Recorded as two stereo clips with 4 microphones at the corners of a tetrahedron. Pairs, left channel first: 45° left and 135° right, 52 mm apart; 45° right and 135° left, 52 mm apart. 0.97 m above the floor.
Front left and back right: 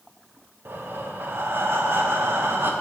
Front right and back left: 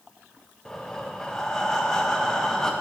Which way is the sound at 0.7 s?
120° right.